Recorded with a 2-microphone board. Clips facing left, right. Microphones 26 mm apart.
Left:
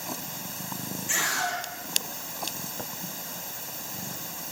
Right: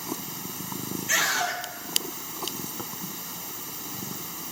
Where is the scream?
30° right (ahead or behind), 3.5 m.